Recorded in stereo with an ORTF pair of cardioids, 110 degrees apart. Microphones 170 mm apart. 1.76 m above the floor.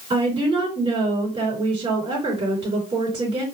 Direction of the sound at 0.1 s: 35° right.